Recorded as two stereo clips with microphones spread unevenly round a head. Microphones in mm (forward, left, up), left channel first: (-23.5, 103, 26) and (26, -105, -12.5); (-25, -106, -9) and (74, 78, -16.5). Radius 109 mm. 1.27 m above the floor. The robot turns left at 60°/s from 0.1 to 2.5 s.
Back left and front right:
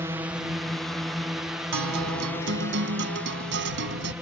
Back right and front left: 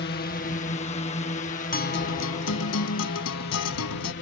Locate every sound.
0.0 s a drone: 145° right; by 4.2 s 160° right
1.7 s a guitar: 70° right; by 4.1 s 120° right